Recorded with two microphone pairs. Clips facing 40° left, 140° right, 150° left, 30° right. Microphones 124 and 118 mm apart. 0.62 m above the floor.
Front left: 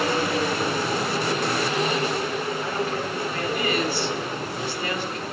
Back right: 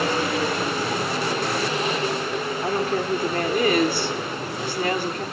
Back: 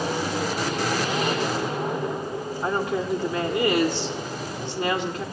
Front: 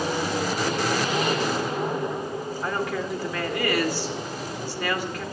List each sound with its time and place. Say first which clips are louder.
2.6 s a woman speaking: back right 3 dB, back 4 dB; 150° right, 1.7 m